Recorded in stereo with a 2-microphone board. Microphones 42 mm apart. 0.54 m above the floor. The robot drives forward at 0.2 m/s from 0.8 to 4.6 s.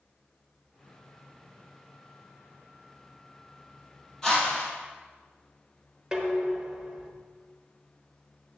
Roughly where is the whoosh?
Centre.